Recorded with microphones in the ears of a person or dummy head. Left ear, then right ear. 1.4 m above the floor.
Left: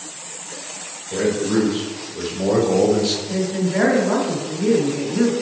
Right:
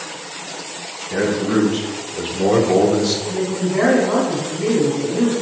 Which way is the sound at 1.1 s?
30° right (ahead or behind).